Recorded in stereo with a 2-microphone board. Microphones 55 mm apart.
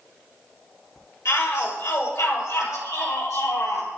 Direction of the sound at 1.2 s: 70° left (ahead or behind).